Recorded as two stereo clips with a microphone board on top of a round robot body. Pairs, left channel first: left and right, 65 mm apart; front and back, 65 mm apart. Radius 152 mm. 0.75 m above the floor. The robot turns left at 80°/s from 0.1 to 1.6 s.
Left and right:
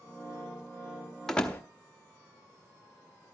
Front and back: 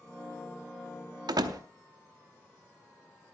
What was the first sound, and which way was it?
A door slam, 175° left.